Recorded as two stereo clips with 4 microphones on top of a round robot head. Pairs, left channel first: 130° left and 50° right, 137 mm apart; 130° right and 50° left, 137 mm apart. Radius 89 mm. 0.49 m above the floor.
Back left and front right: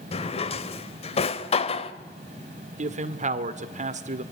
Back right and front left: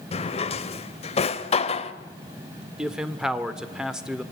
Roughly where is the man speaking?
Ahead right.